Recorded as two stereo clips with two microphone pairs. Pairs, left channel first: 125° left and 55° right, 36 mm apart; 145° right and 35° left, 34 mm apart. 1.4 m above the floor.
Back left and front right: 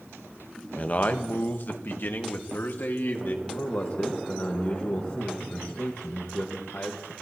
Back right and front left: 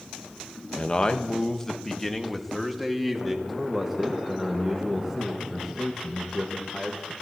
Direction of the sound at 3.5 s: 125° left.